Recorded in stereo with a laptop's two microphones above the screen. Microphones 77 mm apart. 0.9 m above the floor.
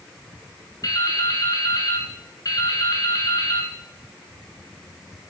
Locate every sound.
0.8 s dripping: 50° left (ahead or behind), 2.5 m